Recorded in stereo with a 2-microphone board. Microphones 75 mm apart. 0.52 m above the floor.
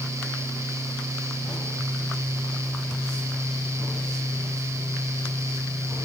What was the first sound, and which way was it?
Only background noise.